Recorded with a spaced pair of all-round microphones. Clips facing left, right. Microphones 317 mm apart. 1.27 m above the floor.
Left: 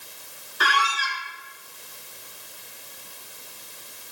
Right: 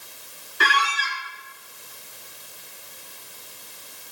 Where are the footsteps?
I don't hear footsteps.